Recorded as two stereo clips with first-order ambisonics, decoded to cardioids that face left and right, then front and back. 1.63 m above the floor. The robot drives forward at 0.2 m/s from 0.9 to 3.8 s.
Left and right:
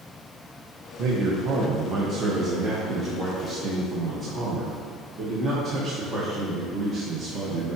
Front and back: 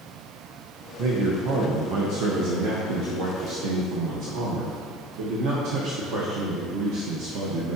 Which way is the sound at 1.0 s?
140° right.